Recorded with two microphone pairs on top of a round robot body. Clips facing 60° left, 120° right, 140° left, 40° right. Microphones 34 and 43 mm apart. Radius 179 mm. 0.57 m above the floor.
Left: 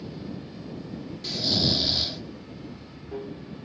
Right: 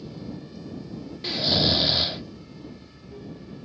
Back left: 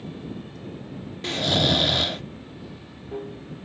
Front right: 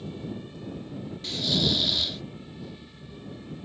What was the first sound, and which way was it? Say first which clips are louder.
Running water: even, back left 1 dB; 110° left.